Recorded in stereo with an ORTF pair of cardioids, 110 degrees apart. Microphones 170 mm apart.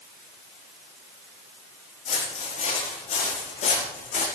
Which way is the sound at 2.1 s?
55° left.